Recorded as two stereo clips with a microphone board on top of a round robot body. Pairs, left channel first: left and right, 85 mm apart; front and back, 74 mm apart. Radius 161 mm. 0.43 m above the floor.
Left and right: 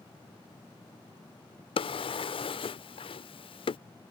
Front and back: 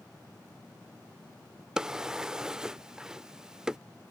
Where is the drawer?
100° left.